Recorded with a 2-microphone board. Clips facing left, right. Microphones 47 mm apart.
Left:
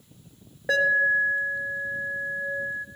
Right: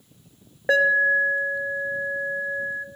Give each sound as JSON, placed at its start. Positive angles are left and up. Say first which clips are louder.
{"t": 0.7, "sound": "an alarm", "louder": "right 3 dB", "side_deg": -25, "distance_m": 0.8}